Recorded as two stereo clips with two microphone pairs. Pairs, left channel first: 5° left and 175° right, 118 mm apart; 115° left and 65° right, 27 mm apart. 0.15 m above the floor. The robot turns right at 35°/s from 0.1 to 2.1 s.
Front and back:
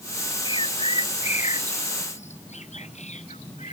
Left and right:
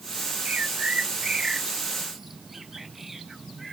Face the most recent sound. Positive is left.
turn(degrees=15)